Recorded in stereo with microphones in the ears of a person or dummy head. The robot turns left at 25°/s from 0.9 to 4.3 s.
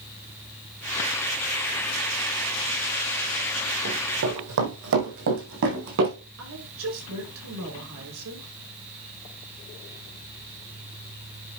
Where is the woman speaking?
85° right, 5.5 m.